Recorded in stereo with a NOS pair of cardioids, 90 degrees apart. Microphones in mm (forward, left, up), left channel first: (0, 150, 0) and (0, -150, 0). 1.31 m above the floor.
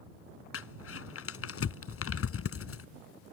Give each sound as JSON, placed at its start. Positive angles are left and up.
{"t": 0.5, "sound": "crumpling", "azimuth_deg": 50}